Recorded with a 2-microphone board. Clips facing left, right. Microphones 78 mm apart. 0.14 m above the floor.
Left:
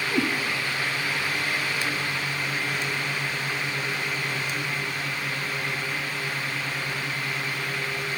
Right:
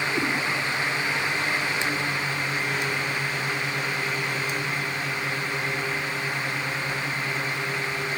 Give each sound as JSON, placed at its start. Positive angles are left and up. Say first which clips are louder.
{"t": 0.1, "sound": "a cat meowing", "louder": "left 5 dB", "side_deg": 75, "distance_m": 4.5}